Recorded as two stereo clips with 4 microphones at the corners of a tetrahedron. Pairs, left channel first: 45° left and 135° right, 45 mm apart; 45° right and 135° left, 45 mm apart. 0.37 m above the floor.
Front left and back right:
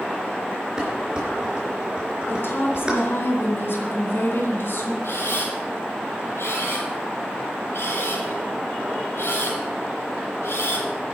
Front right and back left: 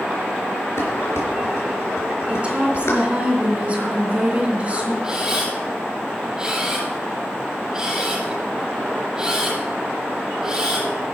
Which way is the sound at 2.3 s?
75° left.